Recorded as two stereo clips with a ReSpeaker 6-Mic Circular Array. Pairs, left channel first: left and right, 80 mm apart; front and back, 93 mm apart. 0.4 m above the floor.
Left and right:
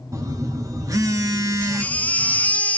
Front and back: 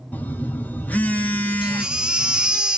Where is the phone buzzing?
65° right, 1.0 m.